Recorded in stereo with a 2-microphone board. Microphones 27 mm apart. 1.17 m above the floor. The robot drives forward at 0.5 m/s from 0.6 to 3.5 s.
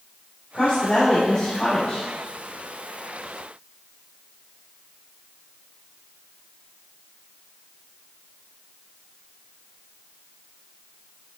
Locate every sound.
0.5 s a woman speaking: 40° left (ahead or behind), 3 m; by 2.0 s 50° left (ahead or behind), 2.5 m